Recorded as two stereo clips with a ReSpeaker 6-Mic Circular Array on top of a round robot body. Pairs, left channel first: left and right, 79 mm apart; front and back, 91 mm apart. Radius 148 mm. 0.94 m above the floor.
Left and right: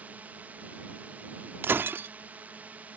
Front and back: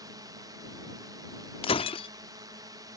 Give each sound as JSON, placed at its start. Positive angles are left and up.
{"t": 0.0, "sound": "a drone", "azimuth_deg": -150}
{"t": 1.6, "sound": "breaking glass", "azimuth_deg": -25}